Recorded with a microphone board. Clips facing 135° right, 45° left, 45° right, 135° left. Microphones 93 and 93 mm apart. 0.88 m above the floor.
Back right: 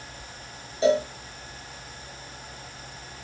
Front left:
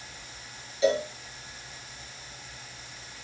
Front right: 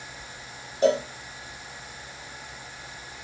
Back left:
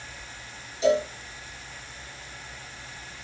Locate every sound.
0.8 s a cowbell: 80° right, 3 m